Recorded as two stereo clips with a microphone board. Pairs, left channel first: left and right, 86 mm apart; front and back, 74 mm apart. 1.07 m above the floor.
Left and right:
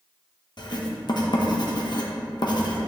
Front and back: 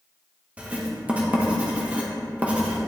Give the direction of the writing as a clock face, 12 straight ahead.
8 o'clock.